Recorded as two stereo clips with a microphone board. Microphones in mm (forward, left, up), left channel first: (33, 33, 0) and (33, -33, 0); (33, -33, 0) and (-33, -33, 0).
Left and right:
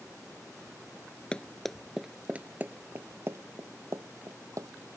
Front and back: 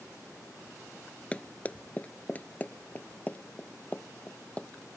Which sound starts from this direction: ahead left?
Running footsteps, at 1.3 s.